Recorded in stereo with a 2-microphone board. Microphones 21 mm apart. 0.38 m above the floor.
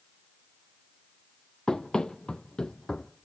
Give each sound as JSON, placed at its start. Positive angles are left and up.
{"t": 1.7, "sound": "running footsteps", "side_deg": 45, "distance_m": 0.6}